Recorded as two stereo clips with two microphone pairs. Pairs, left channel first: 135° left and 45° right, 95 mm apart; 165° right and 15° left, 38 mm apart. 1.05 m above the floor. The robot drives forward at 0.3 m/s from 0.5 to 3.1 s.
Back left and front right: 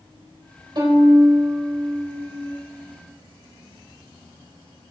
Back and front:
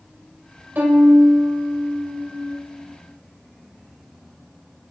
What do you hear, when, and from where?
0.8 s a violin: 10° right, 4.5 m; by 2.6 s 15° right, 4 m